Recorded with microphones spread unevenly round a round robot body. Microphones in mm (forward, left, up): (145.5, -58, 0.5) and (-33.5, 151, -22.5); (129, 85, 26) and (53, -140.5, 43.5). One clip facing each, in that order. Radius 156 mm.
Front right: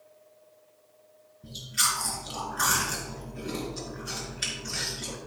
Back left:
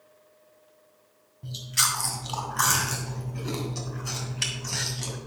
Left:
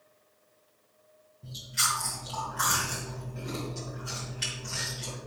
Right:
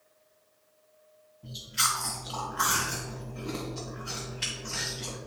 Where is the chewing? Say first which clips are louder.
Back left 2 dB, right 1 dB; 145° left, 2.5 m.